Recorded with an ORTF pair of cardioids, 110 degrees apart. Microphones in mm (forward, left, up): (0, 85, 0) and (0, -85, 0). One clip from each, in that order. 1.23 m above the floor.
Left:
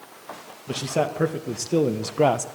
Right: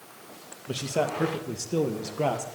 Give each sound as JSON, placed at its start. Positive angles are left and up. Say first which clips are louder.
{"t": 0.7, "sound": "a man speaking", "louder": "left 3 dB", "azimuth_deg": 20, "distance_m": 1.8}